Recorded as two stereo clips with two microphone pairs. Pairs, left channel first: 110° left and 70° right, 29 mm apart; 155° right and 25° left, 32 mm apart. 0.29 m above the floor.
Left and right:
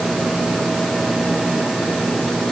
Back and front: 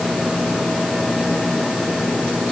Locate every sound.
Only background noise.